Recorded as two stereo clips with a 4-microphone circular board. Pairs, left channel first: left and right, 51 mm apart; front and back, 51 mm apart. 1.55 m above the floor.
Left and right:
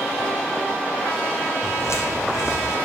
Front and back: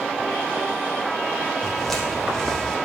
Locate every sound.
1.6 s footsteps: 85° left, 4 m; by 2.8 s 75° left, 3.5 m